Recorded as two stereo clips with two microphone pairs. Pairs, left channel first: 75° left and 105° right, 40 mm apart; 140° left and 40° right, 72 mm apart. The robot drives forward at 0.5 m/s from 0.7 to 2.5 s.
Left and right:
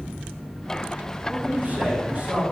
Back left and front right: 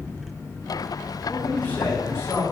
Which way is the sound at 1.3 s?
145° right.